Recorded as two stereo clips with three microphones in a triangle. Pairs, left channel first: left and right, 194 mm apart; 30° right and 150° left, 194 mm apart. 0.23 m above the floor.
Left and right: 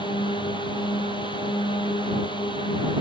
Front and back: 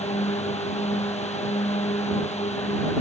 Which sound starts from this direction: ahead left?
A drone, at 0.0 s.